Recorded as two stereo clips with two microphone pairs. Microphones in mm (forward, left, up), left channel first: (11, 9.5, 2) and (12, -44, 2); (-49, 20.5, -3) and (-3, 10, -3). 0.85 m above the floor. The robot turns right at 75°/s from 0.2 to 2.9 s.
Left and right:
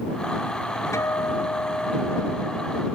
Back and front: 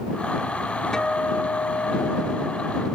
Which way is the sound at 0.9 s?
90° left.